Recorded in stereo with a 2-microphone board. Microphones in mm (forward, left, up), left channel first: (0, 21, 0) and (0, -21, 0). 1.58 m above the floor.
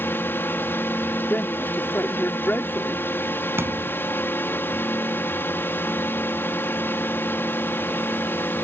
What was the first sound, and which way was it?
A drone, 60° left (ahead or behind).